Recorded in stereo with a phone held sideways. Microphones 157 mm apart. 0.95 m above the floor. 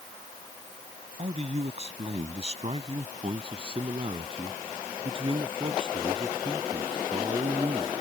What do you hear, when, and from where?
1.2 s a man speaking: 45° right (ahead or behind); by 7.9 s 30° right (ahead or behind)